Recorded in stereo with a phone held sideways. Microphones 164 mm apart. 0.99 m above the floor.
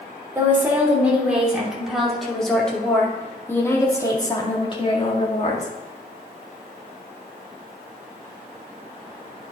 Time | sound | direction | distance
0.3 | a woman speaking | 15° right (ahead or behind) | 3 m